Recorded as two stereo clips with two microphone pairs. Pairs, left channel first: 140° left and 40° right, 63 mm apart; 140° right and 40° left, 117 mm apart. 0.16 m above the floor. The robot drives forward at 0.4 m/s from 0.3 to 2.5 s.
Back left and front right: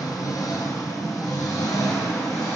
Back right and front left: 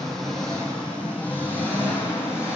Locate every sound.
0.0 s an engine running: 135° left, 1.7 m; by 2.6 s 150° left, 2.5 m